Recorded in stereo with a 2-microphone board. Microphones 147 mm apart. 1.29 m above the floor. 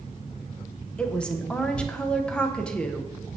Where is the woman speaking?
5° left (ahead or behind), 0.8 m.